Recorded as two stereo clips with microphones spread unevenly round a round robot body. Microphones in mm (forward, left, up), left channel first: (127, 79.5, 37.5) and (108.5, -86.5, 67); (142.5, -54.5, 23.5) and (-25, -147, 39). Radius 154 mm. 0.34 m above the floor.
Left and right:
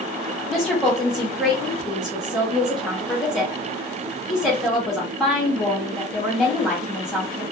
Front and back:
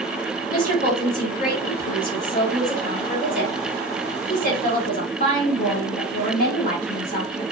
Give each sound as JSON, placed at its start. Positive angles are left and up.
{"t": 0.5, "sound": "a woman speaking", "azimuth_deg": -5, "distance_m": 2.0}